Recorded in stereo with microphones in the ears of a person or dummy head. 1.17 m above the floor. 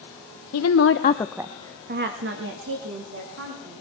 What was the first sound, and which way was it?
A woman speaking, 80° left.